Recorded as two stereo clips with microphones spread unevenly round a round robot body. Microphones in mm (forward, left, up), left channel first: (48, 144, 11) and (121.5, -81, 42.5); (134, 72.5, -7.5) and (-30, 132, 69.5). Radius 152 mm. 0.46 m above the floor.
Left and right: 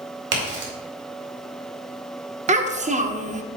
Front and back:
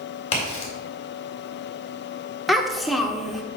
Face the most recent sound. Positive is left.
turn(degrees=-40)